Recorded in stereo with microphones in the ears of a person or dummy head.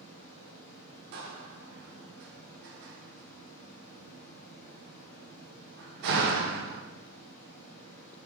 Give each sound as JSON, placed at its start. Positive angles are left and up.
{"t": 0.0, "sound": "running water", "side_deg": 90, "distance_m": 1.8}
{"t": 1.1, "sound": "a door slam", "side_deg": -60, "distance_m": 0.5}